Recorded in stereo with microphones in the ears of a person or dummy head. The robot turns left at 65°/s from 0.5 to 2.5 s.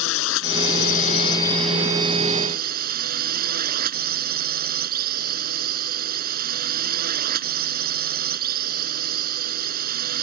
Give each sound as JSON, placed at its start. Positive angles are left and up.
{"t": 0.0, "sound": "a drone", "azimuth_deg": 80}